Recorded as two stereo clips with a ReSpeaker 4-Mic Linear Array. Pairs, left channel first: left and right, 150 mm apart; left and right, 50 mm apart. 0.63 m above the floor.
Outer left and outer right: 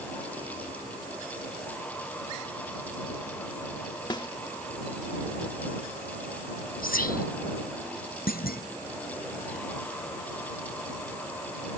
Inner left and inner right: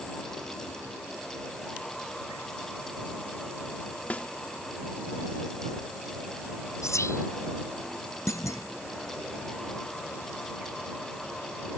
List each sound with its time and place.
4.1 s a snare drum: 30° left (ahead or behind)
6.8 s whispering: 80° left
8.3 s a clunk: 85° left